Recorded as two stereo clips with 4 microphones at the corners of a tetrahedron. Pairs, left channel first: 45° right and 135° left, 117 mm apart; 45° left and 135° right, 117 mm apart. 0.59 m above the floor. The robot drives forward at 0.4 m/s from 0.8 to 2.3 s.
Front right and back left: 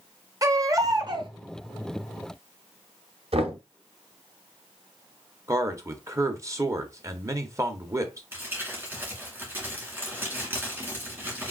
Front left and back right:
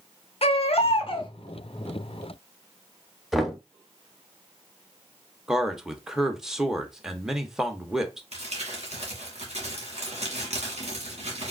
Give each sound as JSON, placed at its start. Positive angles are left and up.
{"t": 0.4, "sound": "a baby crying", "azimuth_deg": 75, "distance_m": 0.7}
{"t": 3.3, "sound": "knocking", "azimuth_deg": 135, "distance_m": 0.7}
{"t": 5.5, "sound": "a man speaking", "azimuth_deg": 140, "distance_m": 0.7}
{"t": 8.3, "sound": "crumpling", "azimuth_deg": -155, "distance_m": 1.8}